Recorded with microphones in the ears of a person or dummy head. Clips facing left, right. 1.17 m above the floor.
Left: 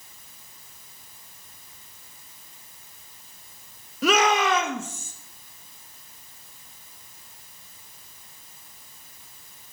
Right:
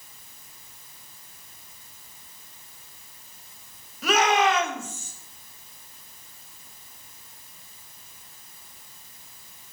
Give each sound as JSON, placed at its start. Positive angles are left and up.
{"t": 4.0, "sound": "a shout", "side_deg": 65, "distance_m": 1.2}